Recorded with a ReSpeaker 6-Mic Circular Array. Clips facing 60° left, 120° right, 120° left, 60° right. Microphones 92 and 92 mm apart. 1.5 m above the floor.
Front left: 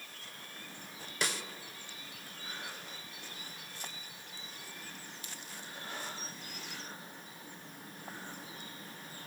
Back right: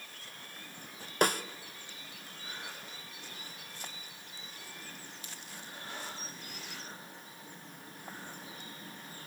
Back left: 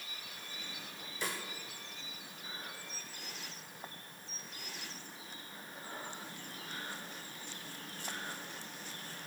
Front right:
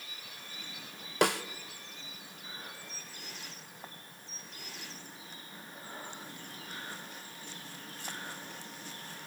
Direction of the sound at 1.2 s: 80° right.